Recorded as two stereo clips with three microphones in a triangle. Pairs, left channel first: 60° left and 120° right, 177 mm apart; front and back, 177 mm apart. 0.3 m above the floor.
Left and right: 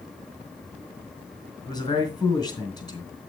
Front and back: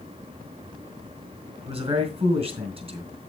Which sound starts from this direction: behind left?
A man speaking, at 1.6 s.